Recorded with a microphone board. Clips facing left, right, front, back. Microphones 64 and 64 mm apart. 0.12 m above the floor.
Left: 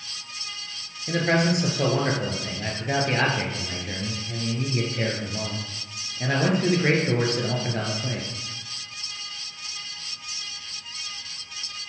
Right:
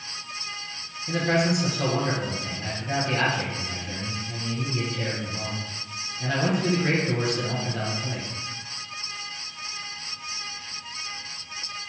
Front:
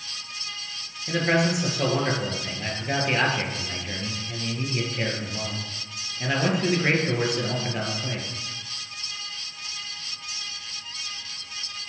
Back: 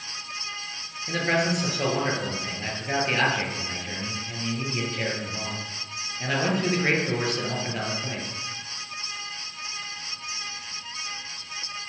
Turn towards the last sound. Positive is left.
turn(degrees=85)